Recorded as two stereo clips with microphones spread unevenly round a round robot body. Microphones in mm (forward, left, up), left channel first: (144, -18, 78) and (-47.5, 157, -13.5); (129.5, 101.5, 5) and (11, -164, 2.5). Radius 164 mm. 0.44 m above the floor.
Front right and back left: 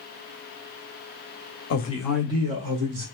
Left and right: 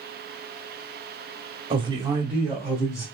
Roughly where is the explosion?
No explosion in this recording.